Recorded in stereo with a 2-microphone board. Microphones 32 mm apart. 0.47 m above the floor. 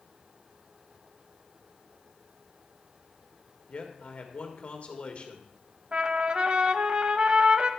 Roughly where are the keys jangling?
I don't hear keys jangling.